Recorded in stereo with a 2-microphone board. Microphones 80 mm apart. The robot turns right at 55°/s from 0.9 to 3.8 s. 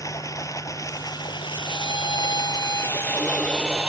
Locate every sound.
0.0 s running water: 45° left; by 3.9 s 155° right
1.6 s a violin: 60° left; by 3.9 s straight behind